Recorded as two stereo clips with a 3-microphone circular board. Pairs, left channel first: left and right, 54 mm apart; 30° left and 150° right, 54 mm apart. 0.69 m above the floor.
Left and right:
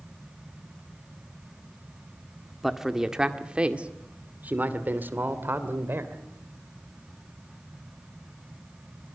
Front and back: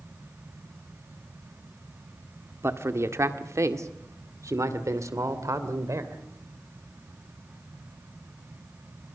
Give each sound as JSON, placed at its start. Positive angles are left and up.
{"t": 2.6, "sound": "a man speaking", "azimuth_deg": -175, "distance_m": 1.6}